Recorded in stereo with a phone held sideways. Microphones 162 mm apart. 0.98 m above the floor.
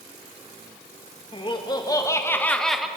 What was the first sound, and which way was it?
Laughter, 30° left (ahead or behind).